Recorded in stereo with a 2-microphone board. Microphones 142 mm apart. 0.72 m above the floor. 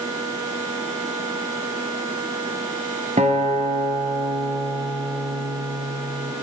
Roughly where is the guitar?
Right.